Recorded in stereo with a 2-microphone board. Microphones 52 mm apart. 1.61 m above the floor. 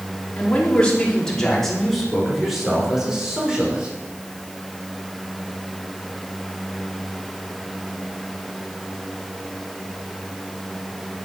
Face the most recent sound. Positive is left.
turn(degrees=-15)  # may be behind; listen again after turning